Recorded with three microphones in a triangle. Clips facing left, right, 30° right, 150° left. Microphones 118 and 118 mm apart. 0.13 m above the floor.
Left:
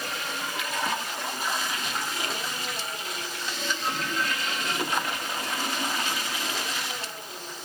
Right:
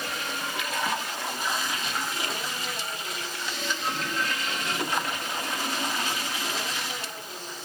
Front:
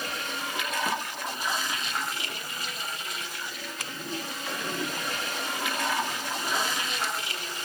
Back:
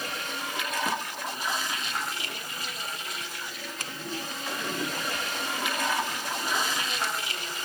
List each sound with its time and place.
Only background noise.